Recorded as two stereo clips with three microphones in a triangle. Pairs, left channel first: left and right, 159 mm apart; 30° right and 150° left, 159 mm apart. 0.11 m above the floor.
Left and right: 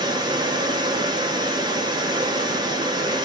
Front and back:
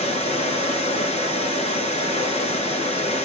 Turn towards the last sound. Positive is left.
turn(degrees=-40)